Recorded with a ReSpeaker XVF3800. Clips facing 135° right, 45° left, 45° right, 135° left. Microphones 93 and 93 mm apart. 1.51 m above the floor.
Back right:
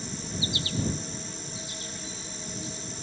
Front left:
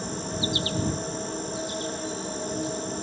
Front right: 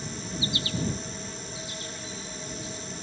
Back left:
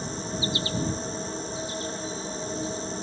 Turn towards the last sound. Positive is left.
turn(degrees=80)